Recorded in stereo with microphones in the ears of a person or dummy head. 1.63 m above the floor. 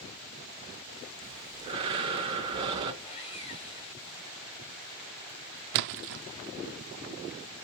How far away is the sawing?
About 1.8 m.